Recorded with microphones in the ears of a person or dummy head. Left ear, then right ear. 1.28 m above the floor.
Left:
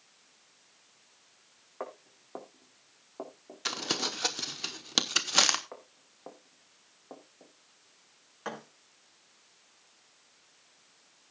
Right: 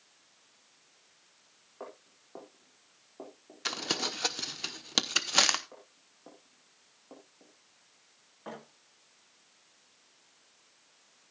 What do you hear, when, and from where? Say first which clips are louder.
1.8 s footsteps: left 5 dB; 70° left (ahead or behind), 4.5 m; by 3.6 s 60° left (ahead or behind), 4.5 m
3.6 s crumpling: left 1 dB; 10° right (ahead or behind), 0.8 m
5.7 s footsteps: left 5 dB; 40° left (ahead or behind), 2.5 m; by 7.5 s 20° left (ahead or behind), 3 m
8.4 s a thud: left 5 dB; 70° left (ahead or behind), 5.5 m